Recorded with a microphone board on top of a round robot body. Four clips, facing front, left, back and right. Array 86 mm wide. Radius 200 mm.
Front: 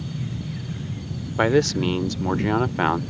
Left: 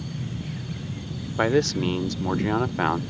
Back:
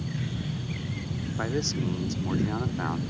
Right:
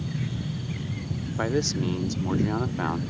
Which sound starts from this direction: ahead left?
A man speaking, at 1.4 s.